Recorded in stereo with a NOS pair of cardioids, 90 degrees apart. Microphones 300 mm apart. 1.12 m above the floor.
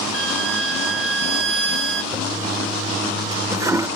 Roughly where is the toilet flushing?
Ahead.